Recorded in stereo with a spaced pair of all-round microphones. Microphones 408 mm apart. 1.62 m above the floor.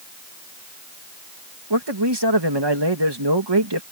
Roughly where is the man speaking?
Right.